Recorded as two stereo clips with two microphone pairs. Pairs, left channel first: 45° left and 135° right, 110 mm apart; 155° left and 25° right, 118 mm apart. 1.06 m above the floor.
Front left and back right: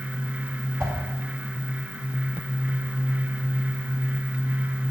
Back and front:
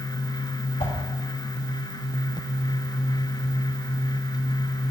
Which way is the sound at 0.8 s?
170° left.